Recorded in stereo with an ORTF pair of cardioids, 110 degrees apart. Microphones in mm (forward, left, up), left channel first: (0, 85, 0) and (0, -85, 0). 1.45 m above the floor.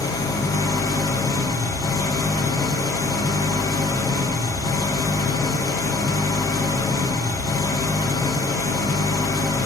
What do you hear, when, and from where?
0.0 s an engine running: 20° left, 0.7 m